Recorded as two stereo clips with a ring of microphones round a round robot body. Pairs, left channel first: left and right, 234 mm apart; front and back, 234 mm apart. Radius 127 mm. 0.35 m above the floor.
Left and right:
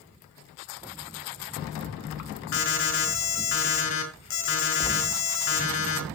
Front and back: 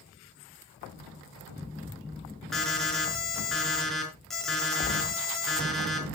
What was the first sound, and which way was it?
An alarm, 90° left.